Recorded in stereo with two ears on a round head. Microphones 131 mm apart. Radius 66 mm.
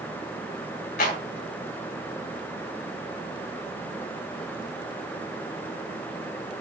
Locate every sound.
1.0 s a clap: 70° left (ahead or behind), 3.5 m